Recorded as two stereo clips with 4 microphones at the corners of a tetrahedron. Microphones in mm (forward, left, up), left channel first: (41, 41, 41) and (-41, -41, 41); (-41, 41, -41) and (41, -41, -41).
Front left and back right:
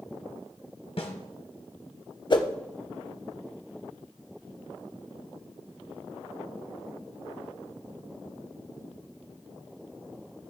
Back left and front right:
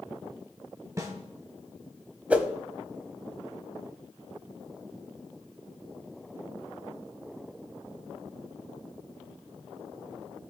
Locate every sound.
1.0 s a snare drum: 15° left, 1.5 m
2.3 s a whoosh: 30° left, 0.8 m